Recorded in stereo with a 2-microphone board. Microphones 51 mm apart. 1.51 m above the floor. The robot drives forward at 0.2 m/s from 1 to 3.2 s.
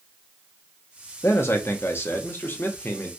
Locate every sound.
1.2 s a man speaking: 60° left (ahead or behind), 0.7 m; by 3.1 s 40° left (ahead or behind), 0.9 m